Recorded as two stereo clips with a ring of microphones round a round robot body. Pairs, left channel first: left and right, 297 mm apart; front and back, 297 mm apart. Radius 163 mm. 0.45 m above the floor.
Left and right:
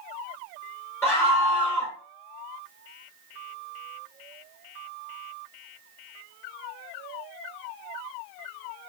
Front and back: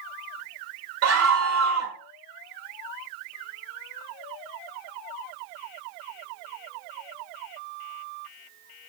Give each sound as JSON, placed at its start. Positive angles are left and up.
{"t": 1.0, "sound": "a scream", "azimuth_deg": 170, "distance_m": 1.9}